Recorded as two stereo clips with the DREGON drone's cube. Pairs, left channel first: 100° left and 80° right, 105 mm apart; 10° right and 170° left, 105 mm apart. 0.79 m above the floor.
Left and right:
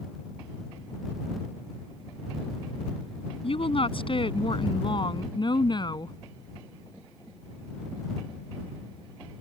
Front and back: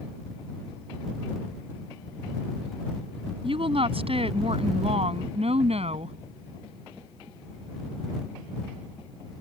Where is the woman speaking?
135° left; by 6.2 s 150° left.